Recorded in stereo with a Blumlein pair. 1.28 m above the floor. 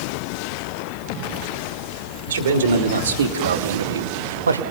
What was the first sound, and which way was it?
A man speaking, 65° right.